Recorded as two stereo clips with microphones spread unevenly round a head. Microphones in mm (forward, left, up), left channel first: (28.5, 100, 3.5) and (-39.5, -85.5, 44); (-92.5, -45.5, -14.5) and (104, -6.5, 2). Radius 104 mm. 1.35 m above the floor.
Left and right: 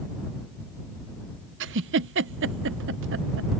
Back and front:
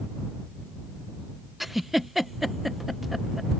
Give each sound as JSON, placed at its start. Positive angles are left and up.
{"t": 1.6, "sound": "a giggle", "azimuth_deg": -80}